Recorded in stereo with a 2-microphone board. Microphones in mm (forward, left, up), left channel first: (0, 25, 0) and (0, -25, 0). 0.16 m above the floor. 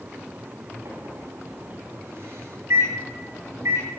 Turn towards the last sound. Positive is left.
turn(degrees=-80)